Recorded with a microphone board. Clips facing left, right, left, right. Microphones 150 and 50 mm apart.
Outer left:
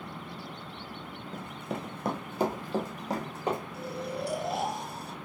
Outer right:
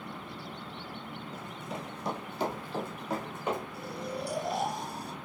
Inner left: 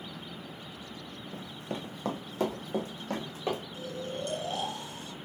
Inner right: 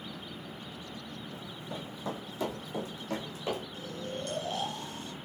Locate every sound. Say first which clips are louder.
1.3 s running footsteps: outer left 5 dB, inner left 5 dB; 55° left (ahead or behind), 0.5 m; by 3.6 s 35° left (ahead or behind), 1.7 m
3.7 s snoring: outer left 2 dB, inner left 2 dB; 20° left (ahead or behind), 2 m